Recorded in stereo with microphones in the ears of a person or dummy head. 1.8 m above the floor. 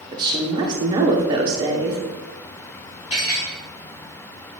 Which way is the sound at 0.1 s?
25° right (ahead or behind).